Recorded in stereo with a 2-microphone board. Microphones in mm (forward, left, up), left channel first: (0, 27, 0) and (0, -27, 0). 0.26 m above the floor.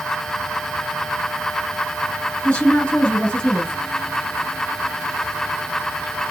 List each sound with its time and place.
2.4 s a woman speaking: 20° left (ahead or behind), 2.0 m